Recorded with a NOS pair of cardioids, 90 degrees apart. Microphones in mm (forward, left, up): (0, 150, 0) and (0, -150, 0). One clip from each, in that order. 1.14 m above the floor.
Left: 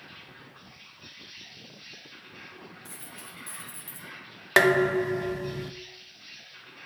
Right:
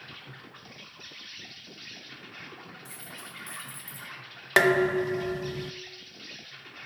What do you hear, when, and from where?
0.0 s an insect: 65° right, 2 m
2.9 s a dropped coin: 10° left, 2.5 m
4.6 s dishes clattering: 5° left, 0.5 m